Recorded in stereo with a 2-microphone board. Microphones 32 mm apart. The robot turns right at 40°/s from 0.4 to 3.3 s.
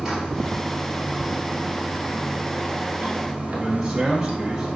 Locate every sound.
0.0 s running water: 160° right, 1.5 m; by 4.8 s 45° right, 1.5 m
3.5 s a man speaking: 15° right (ahead or behind), 1.0 m